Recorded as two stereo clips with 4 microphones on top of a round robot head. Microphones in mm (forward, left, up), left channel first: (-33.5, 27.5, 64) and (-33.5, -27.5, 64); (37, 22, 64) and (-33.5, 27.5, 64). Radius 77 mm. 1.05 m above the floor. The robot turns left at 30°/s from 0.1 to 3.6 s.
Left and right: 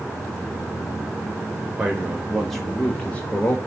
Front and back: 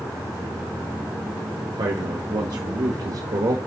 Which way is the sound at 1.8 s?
160° right.